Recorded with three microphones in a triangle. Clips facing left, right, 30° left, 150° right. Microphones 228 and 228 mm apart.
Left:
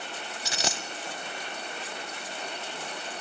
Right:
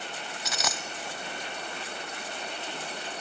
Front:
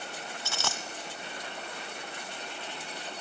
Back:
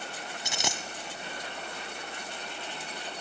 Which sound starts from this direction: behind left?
A dropped coin, at 0.5 s.